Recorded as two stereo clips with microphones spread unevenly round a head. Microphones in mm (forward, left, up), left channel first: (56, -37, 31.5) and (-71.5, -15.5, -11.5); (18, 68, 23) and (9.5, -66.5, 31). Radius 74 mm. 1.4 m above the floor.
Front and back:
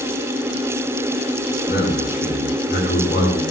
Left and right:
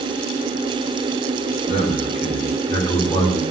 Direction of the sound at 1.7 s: 50° left.